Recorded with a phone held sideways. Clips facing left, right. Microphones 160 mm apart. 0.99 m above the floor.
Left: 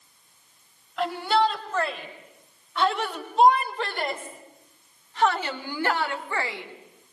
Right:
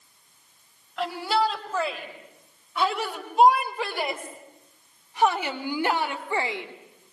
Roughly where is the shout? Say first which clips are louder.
Left 2 dB; centre.